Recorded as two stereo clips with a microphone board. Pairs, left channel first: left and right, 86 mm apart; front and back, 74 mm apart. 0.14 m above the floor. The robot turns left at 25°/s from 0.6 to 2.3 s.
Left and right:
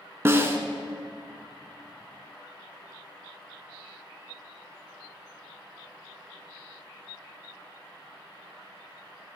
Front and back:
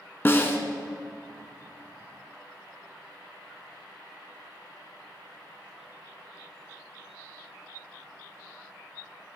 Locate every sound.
0.2 s a snare drum: 45° right, 0.5 m